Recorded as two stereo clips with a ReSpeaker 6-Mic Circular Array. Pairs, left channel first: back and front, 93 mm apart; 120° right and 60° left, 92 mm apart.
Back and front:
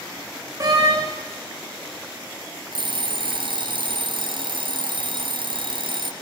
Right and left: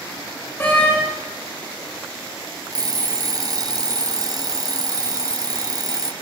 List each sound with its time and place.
0.6 s a door slam: 50° right, 9.5 m
2.7 s an alarm clock: 20° left, 2 m